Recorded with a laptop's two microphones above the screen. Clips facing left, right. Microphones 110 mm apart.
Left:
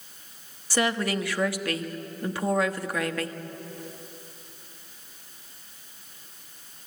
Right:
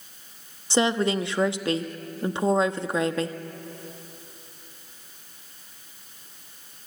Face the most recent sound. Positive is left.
turn(degrees=-25)  # may be behind; listen again after turning